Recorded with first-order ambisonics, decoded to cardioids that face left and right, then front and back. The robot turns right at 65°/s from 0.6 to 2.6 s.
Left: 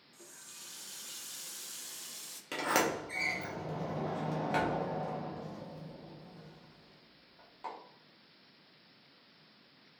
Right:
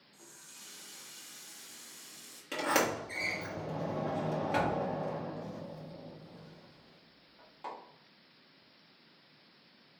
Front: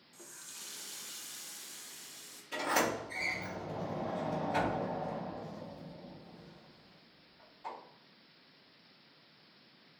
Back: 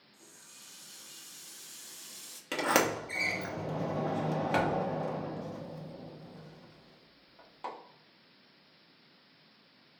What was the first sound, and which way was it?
A running tap, 10° left.